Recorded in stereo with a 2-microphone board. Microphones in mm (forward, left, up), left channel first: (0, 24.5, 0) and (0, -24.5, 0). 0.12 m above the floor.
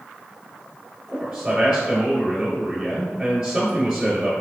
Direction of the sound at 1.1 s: 10° right (ahead or behind).